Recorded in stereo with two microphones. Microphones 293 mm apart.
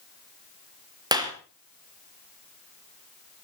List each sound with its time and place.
1.1 s a clap: 15° right (ahead or behind), 3.5 m